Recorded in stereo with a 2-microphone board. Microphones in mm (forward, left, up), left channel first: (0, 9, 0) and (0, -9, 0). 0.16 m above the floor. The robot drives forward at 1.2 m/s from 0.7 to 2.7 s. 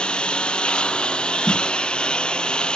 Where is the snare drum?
60° left (ahead or behind); by 1.7 s 50° left (ahead or behind).